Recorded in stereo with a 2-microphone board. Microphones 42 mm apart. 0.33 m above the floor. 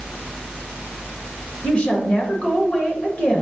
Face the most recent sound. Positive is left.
turn(degrees=35)  # may be behind; listen again after turning